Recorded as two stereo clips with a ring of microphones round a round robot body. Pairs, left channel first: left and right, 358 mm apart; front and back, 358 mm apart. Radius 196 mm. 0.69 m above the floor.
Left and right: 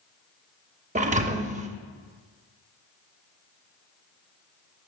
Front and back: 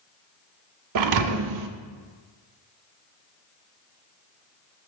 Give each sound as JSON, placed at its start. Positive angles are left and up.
{"t": 0.9, "sound": "a thud", "azimuth_deg": -160, "distance_m": 0.5}